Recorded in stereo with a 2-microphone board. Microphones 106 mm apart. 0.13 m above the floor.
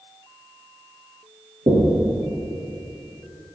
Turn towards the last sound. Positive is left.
turn(degrees=-50)  # may be behind; listen again after turning